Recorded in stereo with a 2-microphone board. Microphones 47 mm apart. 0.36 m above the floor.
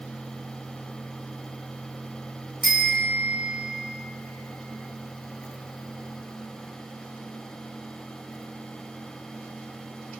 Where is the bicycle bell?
10° left (ahead or behind), 2.5 m.